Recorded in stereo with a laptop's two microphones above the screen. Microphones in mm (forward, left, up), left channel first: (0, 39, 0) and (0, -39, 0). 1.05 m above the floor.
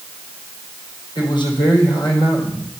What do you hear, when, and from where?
1.1 s a man speaking: 70° left (ahead or behind), 3.5 m